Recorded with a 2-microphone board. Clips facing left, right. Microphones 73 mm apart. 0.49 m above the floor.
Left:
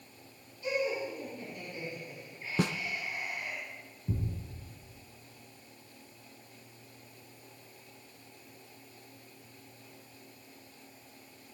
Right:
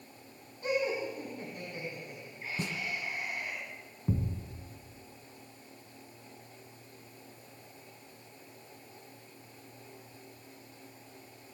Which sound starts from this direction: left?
A snare drum, at 2.6 s.